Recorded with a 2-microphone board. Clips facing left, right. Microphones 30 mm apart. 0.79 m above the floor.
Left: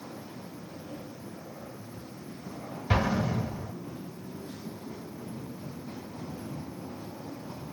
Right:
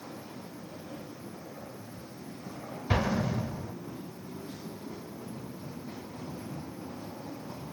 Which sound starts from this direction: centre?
An explosion, at 2.9 s.